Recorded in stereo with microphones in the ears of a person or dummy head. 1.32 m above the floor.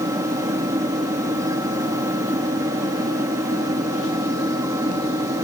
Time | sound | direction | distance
0.0 | a fan | 15° right (ahead or behind) | ?